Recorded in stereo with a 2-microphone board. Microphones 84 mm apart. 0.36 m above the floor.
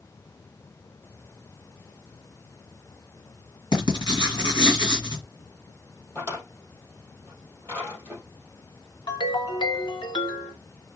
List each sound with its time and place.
3.7 s writing: 65° left (ahead or behind), 2.5 m
6.2 s a drawer: 25° left (ahead or behind), 3 m
9.1 s a ringtone: 75° left (ahead or behind), 1.2 m